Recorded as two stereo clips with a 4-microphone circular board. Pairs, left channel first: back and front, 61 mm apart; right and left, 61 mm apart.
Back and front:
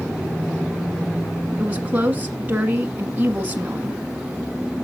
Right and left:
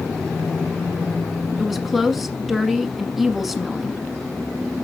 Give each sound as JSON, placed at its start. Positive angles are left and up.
{"t": 1.6, "sound": "a woman speaking", "azimuth_deg": 0, "distance_m": 1.1}